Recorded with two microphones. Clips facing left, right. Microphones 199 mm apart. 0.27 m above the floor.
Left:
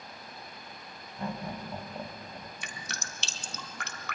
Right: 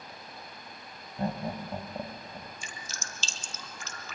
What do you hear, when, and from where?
1.2 s laughter: 40° right (ahead or behind), 2 m; by 2.5 s 5° right (ahead or behind), 1.6 m
2.6 s dripping: 75° left (ahead or behind), 1.5 m